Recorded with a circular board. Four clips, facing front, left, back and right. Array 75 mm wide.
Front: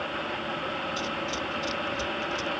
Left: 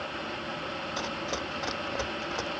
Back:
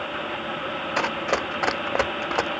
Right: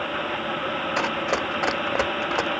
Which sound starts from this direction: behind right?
Running footsteps, at 1.0 s.